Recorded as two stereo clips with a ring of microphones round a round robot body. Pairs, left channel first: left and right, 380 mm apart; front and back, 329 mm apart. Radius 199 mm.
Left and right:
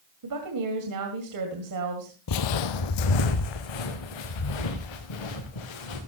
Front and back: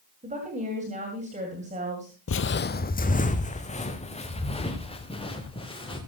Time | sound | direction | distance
0.2 | a woman speaking | 115° right | 2 m
2.3 | footsteps | 50° left | 0.7 m